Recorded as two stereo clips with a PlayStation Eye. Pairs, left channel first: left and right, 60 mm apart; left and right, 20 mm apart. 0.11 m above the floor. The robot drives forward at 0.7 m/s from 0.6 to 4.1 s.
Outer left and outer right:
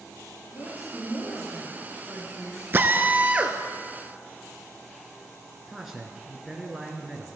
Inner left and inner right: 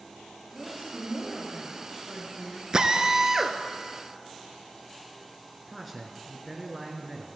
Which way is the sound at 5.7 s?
Centre (ahead or behind).